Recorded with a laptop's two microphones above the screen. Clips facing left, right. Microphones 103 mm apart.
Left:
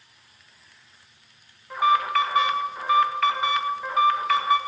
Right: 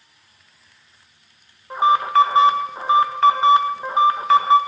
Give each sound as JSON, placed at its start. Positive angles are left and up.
{"t": 1.7, "sound": "an alarm", "side_deg": -30, "distance_m": 1.5}